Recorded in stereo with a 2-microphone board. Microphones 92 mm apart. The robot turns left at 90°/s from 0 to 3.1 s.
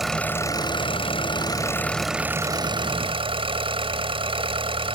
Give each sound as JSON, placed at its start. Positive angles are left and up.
{"t": 0.0, "sound": "an engine running", "azimuth_deg": -175}